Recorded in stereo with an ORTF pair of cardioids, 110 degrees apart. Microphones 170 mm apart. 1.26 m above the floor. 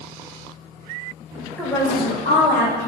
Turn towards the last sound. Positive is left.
turn(degrees=65)